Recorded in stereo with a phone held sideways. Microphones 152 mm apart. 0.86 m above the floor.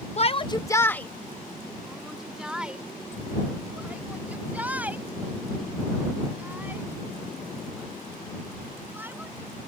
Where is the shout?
45° left (ahead or behind); by 9.5 s 15° right (ahead or behind).